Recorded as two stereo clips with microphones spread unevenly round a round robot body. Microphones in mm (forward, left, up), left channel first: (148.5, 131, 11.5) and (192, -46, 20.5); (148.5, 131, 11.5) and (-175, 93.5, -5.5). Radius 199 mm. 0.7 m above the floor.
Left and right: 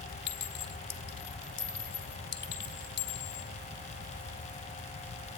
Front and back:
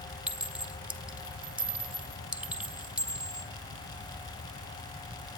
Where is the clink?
100° left, 1.8 m.